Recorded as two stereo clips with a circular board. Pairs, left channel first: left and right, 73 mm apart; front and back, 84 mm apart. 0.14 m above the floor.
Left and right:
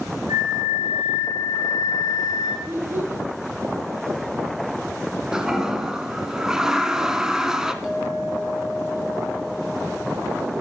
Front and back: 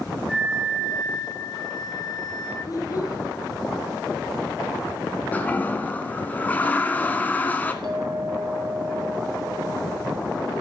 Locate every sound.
0.3 s a flute: 85° right, 7 m
2.6 s a child speaking: 40° right, 3 m
5.3 s a toilet flushing: 25° right, 1.3 m
7.8 s a clink: 175° right, 2.5 m